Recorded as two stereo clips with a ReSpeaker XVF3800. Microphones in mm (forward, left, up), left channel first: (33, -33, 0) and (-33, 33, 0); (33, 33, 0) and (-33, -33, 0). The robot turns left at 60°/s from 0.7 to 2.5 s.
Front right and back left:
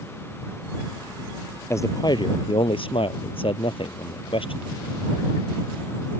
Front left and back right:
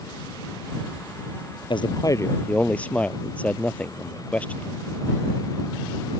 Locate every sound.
1.7 s a man speaking: 15° left; by 4.8 s 30° right